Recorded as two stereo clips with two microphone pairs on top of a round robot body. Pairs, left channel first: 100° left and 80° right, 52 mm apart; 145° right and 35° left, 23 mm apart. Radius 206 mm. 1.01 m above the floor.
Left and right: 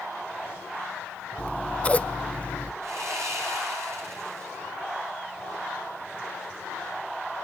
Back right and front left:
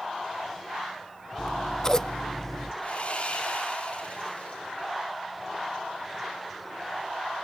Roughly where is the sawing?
Right.